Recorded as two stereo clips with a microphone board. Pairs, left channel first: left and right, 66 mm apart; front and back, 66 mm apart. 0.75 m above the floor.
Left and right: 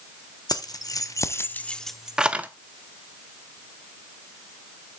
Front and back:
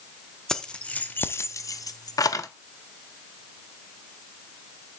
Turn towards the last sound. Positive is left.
turn(degrees=-25)